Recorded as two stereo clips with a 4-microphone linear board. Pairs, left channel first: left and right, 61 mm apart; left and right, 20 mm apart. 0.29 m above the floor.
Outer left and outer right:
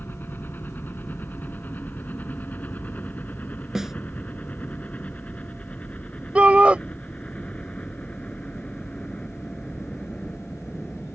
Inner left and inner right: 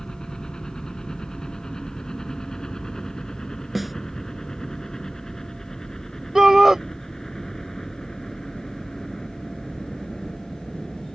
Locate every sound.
0.0 s a helicopter: 35° left (ahead or behind); by 11.2 s 15° left (ahead or behind)
3.8 s a snare drum: 10° right (ahead or behind)
6.3 s a shout: 20° right (ahead or behind)